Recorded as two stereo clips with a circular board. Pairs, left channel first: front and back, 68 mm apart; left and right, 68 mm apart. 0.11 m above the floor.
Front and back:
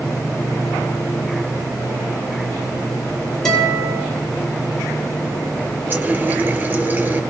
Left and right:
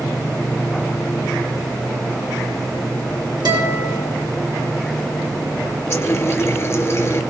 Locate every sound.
3.5 s a guitar: 85° right, 6.5 m
5.9 s a running tap: 130° left, 1.3 m